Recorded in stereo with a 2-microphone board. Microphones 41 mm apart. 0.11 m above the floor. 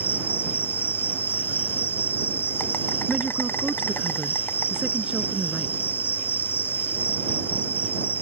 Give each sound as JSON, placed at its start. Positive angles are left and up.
{"t": 0.0, "sound": "an insect", "side_deg": 55}
{"t": 3.1, "sound": "a woman speaking", "side_deg": -25}